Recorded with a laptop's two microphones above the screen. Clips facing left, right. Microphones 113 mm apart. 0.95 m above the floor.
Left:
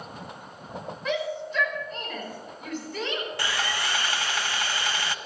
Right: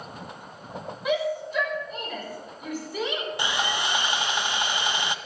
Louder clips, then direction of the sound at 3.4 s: Right 4 dB; 20° right (ahead or behind).